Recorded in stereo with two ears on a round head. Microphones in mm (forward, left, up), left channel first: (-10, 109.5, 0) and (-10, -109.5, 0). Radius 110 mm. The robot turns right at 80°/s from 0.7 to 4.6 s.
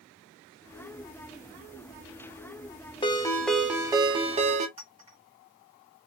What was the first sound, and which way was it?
A ringtone, 20° left (ahead or behind).